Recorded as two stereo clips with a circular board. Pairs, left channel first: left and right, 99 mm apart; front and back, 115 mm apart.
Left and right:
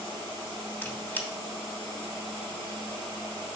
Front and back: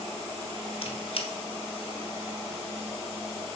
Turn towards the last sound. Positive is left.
turn(degrees=20)